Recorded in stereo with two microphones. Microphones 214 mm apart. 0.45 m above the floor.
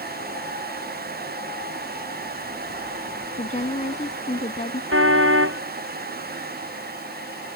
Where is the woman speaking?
35° left (ahead or behind); by 4.8 s 30° left (ahead or behind).